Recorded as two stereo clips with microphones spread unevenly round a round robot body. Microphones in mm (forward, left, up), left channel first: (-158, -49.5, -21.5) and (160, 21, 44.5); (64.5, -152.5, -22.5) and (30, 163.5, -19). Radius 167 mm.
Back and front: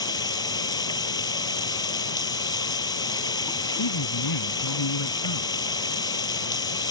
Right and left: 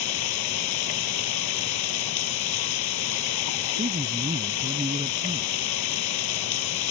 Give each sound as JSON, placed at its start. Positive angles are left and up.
{"t": 0.0, "sound": "running water", "azimuth_deg": -90}
{"t": 3.8, "sound": "a man speaking", "azimuth_deg": 170}